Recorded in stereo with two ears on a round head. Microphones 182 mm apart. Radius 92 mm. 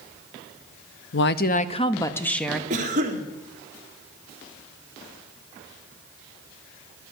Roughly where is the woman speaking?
Left.